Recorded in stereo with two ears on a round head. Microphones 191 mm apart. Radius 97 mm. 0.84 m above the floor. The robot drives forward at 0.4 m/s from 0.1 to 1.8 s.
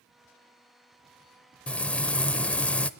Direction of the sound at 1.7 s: 5° left (ahead or behind).